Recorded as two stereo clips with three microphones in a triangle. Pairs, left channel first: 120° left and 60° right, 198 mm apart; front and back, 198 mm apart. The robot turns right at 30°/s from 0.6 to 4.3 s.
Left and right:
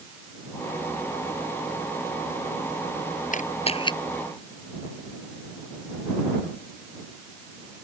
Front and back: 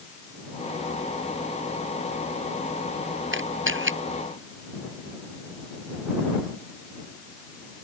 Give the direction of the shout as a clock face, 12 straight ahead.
I don't hear a shout.